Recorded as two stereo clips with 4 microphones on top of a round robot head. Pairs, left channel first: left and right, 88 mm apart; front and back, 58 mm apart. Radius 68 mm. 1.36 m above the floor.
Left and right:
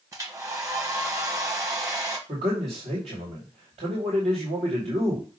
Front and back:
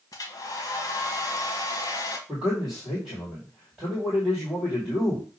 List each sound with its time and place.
0.1 s a hair dryer: 35° right, 1.4 m
2.3 s a man speaking: 85° right, 2.5 m